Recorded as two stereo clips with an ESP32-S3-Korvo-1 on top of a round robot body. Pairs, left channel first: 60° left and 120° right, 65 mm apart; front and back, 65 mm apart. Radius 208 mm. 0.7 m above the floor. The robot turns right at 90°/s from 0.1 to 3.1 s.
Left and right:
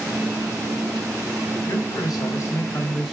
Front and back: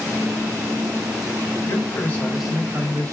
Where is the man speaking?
20° left, 2.5 m; by 3.1 s 150° left, 2.5 m.